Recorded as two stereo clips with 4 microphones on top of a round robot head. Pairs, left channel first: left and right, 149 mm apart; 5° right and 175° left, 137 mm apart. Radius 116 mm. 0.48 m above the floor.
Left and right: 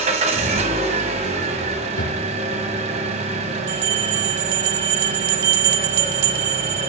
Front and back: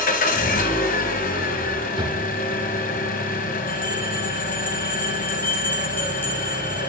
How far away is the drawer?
About 4 m.